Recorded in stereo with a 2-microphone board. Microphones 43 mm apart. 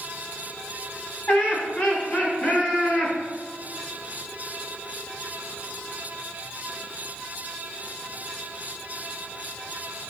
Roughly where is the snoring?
I don't hear snoring.